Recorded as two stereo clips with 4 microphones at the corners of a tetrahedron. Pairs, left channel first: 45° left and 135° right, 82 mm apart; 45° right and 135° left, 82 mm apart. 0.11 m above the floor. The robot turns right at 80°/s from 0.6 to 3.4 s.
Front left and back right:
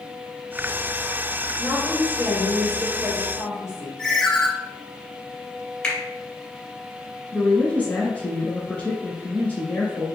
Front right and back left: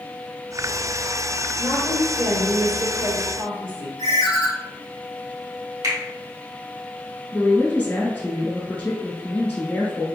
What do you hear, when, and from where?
1.6 s a woman speaking: 50° left, 1.9 m; by 3.9 s 165° right, 1.9 m
4.0 s a ringtone: 35° right, 0.8 m
5.8 s a finger snap: 120° left, 1.6 m
7.3 s a woman speaking: straight ahead, 1.5 m